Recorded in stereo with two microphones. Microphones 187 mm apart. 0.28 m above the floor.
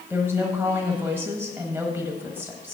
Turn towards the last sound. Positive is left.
turn(degrees=-10)  # may be behind; listen again after turning